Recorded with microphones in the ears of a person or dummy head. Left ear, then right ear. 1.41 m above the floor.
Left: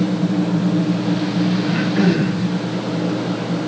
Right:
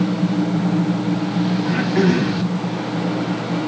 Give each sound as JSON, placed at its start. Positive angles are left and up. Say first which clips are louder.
{"t": 1.6, "sound": "throat clearing", "louder": "right 2 dB", "side_deg": -60, "distance_m": 3.0}